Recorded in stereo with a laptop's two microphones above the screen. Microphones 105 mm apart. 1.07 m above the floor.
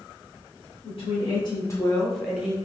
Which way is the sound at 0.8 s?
55° left (ahead or behind).